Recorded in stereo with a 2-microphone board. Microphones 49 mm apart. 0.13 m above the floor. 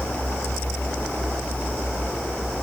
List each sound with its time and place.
Only background noise.